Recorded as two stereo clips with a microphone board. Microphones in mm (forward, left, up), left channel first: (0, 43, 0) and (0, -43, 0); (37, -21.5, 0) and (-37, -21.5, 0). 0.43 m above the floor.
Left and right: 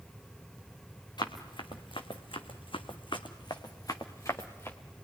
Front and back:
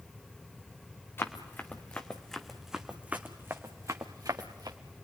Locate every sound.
1.2 s running footsteps: 60° left, 2.5 m; by 4.8 s 155° left, 2.5 m